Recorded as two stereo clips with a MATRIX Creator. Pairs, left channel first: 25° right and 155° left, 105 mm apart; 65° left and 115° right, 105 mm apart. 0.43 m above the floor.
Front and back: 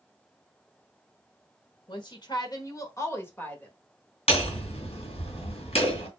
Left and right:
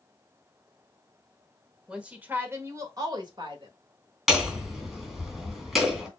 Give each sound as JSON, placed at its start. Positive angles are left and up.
{"t": 1.9, "sound": "a woman speaking", "azimuth_deg": -35, "distance_m": 1.4}
{"t": 4.3, "sound": "hammering", "azimuth_deg": -20, "distance_m": 2.5}